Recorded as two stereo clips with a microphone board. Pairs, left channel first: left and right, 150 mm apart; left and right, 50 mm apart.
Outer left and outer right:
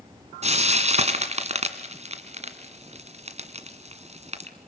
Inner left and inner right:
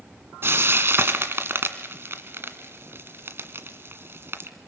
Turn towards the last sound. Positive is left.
turn(degrees=-50)  # may be behind; listen again after turning